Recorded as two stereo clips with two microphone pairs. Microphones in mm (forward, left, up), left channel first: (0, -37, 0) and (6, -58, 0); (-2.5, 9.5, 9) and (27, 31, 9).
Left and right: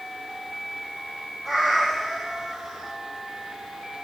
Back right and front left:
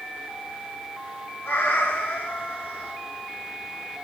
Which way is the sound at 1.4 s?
150° right.